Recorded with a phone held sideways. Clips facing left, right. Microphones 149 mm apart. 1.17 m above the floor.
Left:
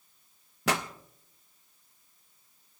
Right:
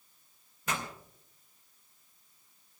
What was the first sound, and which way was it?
A pop, 80° left.